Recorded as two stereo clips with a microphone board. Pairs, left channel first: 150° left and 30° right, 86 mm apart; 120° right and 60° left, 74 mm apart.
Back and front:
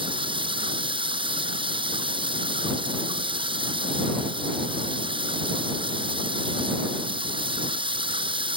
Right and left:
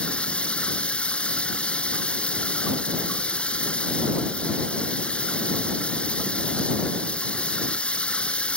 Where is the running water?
45° right.